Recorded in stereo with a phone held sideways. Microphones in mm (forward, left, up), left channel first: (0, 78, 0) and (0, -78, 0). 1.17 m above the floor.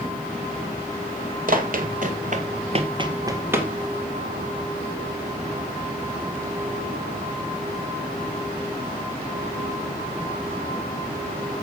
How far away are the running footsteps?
About 2.5 m.